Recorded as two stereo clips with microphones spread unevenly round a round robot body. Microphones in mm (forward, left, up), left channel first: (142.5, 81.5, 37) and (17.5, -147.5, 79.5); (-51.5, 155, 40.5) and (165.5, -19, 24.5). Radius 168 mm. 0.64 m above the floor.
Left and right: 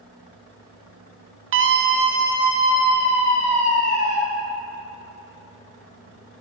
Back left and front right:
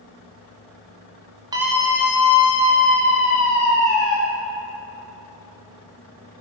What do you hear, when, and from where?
1.5 s a scream: 100° right, 0.7 m; by 4.2 s 135° left, 2.5 m